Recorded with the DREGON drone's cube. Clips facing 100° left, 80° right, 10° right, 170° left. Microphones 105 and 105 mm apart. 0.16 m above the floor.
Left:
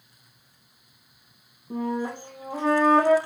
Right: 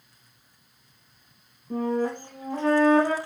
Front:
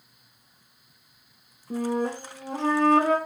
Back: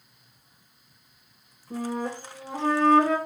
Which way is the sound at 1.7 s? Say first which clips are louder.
Right 2 dB, front 4 dB; 15° left.